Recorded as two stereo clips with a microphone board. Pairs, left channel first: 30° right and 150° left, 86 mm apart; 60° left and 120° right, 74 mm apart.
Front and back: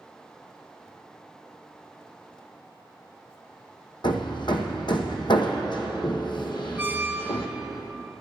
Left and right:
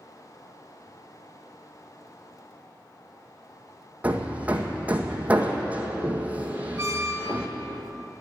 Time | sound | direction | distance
4.0 | hammering | 50° right | 1.4 m
6.8 | a squeak | 145° right | 0.9 m